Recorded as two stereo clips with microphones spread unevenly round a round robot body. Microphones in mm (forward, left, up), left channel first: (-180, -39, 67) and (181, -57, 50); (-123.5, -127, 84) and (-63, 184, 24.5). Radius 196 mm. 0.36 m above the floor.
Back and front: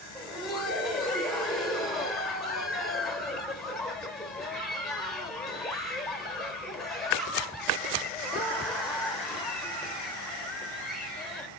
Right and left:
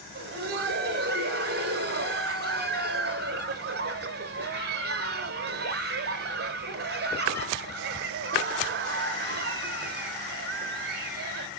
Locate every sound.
0.1 s laughter: 85° left, 1.0 m